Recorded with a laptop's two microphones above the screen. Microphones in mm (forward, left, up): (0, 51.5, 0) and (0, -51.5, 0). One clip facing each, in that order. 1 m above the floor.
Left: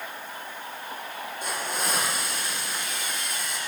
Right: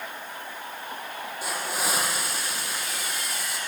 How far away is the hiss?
About 9.5 m.